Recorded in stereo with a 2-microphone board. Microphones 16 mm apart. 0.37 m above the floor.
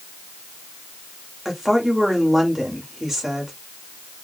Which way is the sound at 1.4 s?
15° right (ahead or behind).